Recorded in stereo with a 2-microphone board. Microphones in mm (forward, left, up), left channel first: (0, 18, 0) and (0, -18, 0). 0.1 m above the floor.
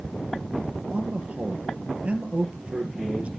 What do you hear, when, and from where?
0.9 s a man speaking: 35° right (ahead or behind), 3 m